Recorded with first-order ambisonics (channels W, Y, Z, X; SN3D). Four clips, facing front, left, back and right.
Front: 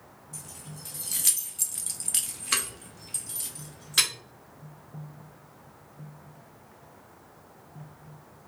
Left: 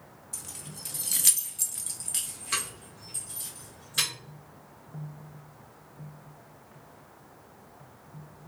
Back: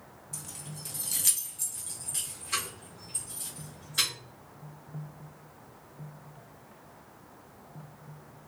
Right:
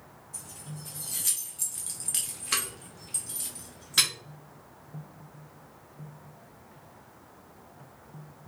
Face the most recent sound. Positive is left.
turn(degrees=-35)